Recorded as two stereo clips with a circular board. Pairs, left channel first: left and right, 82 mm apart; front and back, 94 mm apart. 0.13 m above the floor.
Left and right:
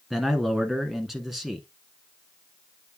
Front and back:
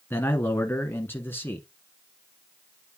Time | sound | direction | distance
0.1 | a man speaking | 5° right | 1.1 m